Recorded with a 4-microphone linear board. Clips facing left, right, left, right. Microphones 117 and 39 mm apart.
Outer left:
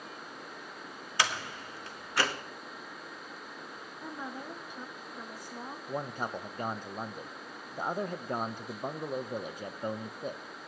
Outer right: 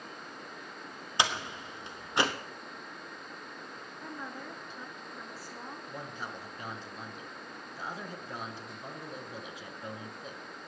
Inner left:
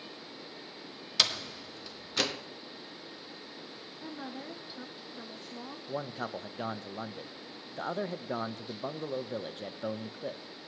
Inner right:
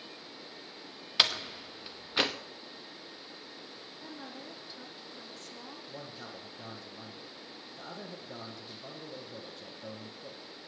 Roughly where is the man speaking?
Left.